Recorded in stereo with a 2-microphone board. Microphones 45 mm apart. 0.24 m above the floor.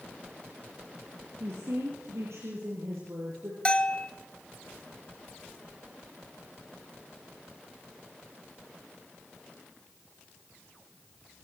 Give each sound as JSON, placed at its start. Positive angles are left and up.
{"t": 1.4, "sound": "a woman speaking", "side_deg": -75, "distance_m": 6.0}
{"t": 3.6, "sound": "a bell", "side_deg": 25, "distance_m": 0.9}